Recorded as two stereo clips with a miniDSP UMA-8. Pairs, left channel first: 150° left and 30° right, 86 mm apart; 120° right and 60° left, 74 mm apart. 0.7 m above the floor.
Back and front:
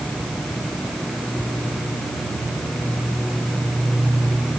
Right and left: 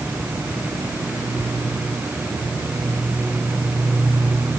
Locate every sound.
Only background noise.